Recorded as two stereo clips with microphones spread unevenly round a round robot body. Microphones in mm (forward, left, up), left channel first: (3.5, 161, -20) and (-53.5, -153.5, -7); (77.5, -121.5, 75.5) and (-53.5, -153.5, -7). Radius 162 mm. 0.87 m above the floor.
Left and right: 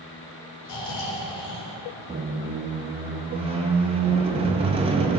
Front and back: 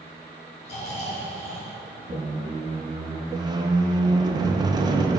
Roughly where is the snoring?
Ahead left.